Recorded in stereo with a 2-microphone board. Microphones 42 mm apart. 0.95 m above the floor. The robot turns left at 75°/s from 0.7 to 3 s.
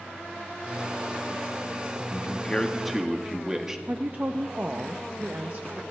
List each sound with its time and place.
2.1 s a man speaking: 55° left, 1.5 m; by 3.8 s 15° right, 1.5 m
3.9 s a woman speaking: 45° right (ahead or behind), 0.8 m